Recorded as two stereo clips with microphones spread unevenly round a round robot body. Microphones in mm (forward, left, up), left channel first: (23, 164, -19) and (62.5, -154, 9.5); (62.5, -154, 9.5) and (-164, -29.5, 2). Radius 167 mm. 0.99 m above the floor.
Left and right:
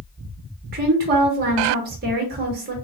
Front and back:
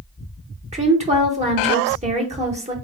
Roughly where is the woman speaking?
Behind right.